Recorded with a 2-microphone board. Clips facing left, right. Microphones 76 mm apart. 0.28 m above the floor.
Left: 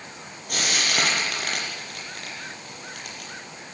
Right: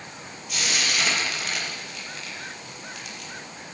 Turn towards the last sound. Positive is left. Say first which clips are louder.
# left 2 dB
turn(degrees=50)  # may be behind; listen again after turning